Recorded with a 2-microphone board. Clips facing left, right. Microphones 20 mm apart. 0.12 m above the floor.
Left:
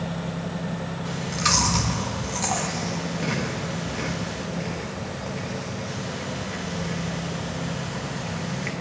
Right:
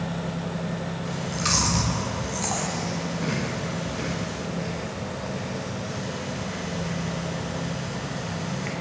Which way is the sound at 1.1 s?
10° left (ahead or behind).